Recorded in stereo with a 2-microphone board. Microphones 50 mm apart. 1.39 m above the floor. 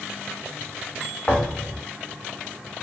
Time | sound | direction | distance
1.3 | a thud | 30° left (ahead or behind) | 1.0 m